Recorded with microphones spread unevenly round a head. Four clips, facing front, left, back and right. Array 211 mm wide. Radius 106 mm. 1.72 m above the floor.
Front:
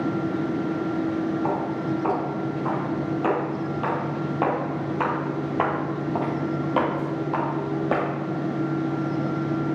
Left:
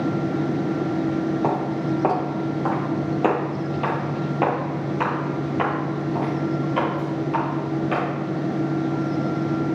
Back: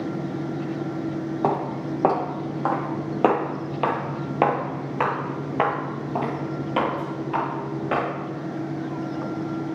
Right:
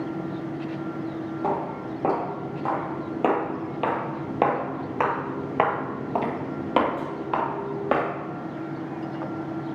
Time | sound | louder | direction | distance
1.4 | footsteps | left 5 dB, back 1 dB | 160° left | 3.5 m